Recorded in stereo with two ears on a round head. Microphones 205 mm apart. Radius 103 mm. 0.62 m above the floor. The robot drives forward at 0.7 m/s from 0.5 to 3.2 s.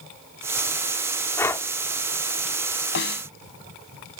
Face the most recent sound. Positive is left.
turn(degrees=50)  # may be behind; listen again after turning